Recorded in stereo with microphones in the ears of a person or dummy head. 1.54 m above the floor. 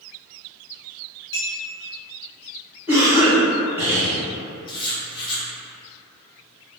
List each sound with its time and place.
1.3 s a clink: 55° left (ahead or behind), 1.2 m
2.9 s a cough: 10° right (ahead or behind), 1.4 m
4.7 s writing: 30° left (ahead or behind), 0.7 m